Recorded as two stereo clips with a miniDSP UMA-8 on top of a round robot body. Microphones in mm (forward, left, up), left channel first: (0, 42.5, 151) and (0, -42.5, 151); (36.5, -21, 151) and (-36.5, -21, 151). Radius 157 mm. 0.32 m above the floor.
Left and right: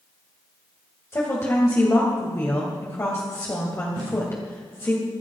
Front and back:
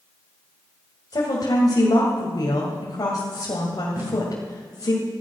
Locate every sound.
1.1 s a woman speaking: 35° left, 2.5 m
4.0 s tape being pulled: 120° right, 5 m